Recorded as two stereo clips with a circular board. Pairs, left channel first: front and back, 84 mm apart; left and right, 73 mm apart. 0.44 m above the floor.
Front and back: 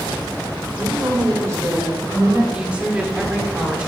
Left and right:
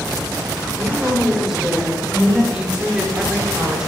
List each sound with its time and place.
0.8 s a woman speaking: 170° right, 1.5 m
2.5 s a woman speaking: 140° right, 1.0 m